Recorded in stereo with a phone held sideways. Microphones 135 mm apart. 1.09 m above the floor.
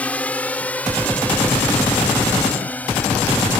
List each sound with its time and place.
0.0 s a drone: 10° left (ahead or behind)